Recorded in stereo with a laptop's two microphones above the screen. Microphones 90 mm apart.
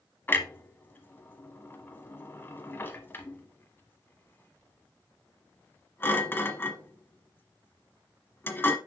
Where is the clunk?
25° left (ahead or behind), 1.1 m.